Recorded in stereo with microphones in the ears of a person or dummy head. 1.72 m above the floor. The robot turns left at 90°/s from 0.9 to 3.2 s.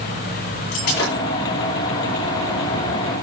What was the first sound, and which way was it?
Breaking glass, 45° left (ahead or behind).